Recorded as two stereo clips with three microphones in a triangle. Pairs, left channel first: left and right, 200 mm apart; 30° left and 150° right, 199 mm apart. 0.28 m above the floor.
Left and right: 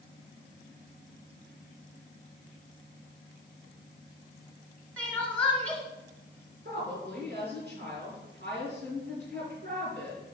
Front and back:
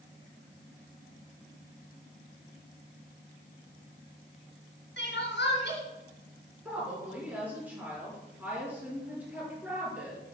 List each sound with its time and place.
5.0 s crying: 10° left, 2.5 m
6.7 s a woman speaking: 70° right, 5 m